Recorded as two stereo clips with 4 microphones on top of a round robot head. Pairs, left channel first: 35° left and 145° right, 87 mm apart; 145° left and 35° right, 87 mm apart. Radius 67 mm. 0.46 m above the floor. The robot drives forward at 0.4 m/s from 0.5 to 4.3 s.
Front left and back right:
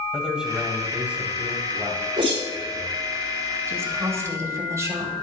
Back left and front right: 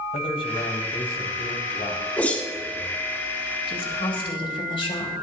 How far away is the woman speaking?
About 2.5 m.